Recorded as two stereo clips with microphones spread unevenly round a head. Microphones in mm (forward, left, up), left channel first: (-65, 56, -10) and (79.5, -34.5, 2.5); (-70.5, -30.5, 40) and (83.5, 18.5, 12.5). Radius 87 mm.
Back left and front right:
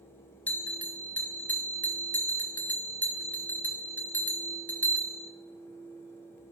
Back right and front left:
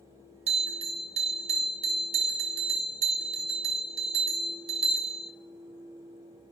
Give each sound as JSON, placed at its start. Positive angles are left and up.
{"t": 0.5, "sound": "a bell", "azimuth_deg": 70, "distance_m": 1.0}